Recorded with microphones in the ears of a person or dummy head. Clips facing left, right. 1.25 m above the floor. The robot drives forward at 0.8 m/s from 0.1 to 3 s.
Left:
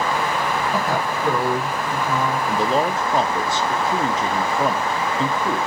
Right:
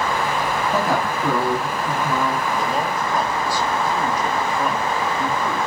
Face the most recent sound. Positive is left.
turn(degrees=15)  # may be behind; listen again after turning